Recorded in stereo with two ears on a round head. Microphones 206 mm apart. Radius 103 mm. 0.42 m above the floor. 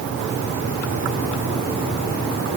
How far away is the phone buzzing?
No phone buzzing in this recording.